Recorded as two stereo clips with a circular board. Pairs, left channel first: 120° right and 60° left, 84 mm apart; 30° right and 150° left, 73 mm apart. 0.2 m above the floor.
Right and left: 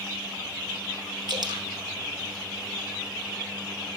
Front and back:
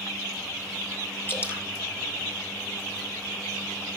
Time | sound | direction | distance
1.3 | dripping | 30° left | 2.5 m